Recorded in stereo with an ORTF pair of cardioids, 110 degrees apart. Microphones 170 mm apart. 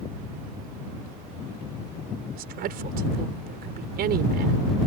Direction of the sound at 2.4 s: 65° right.